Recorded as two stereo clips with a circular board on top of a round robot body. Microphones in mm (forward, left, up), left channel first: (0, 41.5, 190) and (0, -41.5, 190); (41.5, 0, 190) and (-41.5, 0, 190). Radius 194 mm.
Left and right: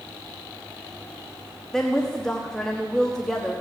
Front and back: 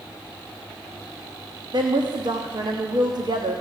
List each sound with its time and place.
1.7 s a woman speaking: 175° left, 1.5 m